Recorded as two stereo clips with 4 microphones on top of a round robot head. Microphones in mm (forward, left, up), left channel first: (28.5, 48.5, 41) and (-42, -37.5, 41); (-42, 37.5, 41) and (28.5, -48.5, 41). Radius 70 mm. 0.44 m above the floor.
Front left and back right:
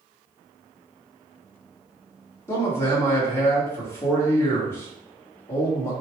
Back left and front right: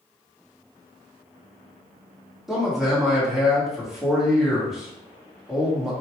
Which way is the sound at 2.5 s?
30° left.